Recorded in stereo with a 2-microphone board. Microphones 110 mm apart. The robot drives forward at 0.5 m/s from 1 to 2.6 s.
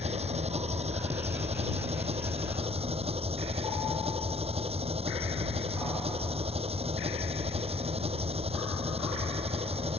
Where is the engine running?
70° right (ahead or behind); by 10.0 s 65° right (ahead or behind).